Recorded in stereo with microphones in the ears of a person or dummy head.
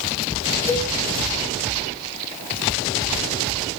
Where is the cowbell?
20° left (ahead or behind), 1.3 m.